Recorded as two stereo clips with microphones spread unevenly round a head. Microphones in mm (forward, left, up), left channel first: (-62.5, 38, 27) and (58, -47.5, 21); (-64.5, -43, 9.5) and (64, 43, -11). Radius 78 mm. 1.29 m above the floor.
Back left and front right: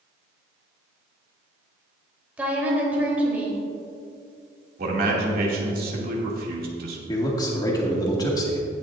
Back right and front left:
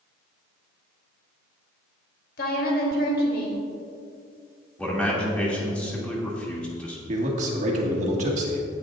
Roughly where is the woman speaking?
Behind right.